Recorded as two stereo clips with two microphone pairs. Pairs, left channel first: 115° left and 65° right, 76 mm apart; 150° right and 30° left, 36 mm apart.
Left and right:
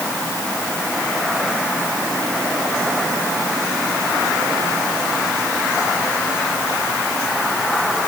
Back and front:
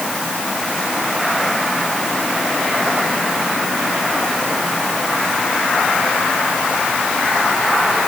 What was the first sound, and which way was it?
Only background noise.